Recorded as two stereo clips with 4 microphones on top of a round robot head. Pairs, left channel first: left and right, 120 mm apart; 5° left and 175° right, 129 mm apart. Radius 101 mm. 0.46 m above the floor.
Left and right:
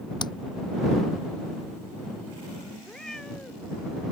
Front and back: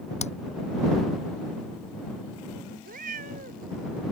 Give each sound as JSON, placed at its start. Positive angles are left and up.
{"t": 0.2, "sound": "hammering", "azimuth_deg": 35}
{"t": 2.8, "sound": "a cat meowing", "azimuth_deg": 175}